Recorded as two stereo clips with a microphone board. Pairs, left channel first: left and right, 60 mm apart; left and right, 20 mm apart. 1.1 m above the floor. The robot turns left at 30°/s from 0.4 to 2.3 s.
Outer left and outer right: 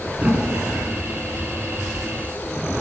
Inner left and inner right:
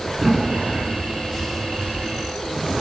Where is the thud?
25° right (ahead or behind), 3.5 m; by 0.9 s 10° right (ahead or behind), 3.5 m.